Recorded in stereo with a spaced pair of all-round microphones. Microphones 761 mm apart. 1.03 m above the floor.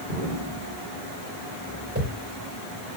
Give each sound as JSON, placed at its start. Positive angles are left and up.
{"t": 0.1, "sound": "an explosion", "side_deg": -75, "distance_m": 6.0}
{"t": 1.9, "sound": "a whoosh", "side_deg": -15, "distance_m": 4.0}